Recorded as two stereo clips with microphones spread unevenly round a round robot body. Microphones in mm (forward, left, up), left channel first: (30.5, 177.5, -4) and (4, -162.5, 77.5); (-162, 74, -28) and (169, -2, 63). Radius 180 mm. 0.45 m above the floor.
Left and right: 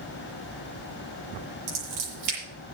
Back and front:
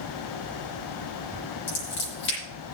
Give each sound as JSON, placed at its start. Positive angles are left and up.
{"t": 1.7, "sound": "scissors", "azimuth_deg": -135, "distance_m": 8.5}